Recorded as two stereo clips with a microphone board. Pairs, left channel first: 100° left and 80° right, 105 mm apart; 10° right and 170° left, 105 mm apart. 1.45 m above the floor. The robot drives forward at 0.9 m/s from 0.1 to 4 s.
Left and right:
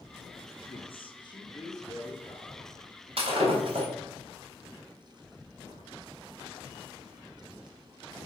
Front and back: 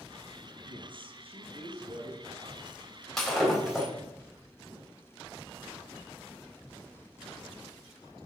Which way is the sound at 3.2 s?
95° right.